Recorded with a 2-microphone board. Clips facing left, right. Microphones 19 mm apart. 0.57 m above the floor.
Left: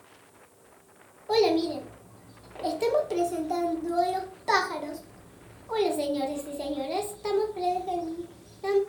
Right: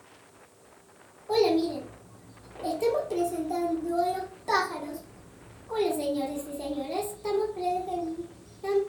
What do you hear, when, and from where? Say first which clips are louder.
1.3 s a child speaking: left 1 dB; 30° left (ahead or behind), 0.9 m